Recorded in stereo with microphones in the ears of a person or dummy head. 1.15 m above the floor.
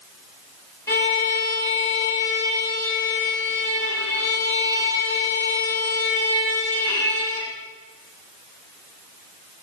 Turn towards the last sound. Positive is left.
turn(degrees=15)  # may be behind; listen again after turning